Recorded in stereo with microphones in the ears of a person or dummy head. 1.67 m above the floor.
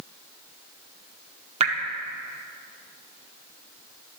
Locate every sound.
1.6 s dripping: 35° right (ahead or behind), 1.2 m